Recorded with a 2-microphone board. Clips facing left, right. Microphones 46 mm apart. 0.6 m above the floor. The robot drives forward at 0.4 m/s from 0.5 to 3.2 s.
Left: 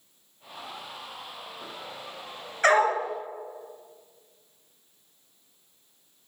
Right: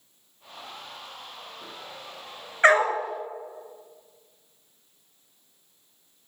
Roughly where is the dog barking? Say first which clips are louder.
Right 2 dB; right.